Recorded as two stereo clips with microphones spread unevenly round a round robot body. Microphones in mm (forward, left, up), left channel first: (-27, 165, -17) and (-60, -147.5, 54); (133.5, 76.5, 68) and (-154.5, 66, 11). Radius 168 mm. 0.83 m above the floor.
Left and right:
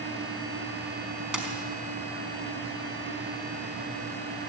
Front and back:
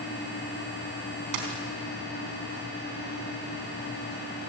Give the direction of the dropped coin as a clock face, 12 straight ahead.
6 o'clock.